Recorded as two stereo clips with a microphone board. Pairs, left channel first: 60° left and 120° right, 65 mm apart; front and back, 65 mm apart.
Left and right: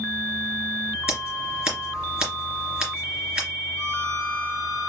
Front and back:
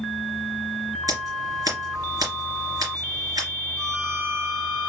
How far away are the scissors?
About 2.5 m.